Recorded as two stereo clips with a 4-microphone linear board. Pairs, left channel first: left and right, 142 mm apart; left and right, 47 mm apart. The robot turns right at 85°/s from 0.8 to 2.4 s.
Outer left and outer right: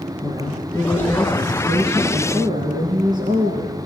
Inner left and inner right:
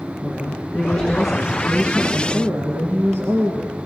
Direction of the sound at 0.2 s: 145° left.